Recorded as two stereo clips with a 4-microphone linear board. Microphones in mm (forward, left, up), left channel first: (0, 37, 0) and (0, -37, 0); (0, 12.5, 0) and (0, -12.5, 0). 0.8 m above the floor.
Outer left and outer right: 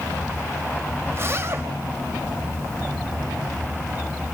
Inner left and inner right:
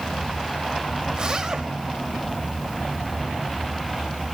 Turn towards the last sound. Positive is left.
turn(degrees=-35)  # may be behind; listen again after turning